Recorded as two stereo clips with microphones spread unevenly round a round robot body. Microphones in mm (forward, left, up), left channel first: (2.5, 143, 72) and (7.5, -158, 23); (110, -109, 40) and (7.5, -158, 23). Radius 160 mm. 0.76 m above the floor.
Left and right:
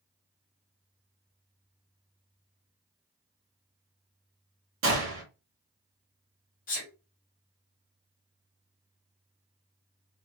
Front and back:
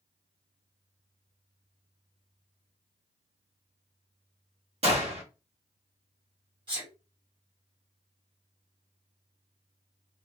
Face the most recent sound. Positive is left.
turn(degrees=155)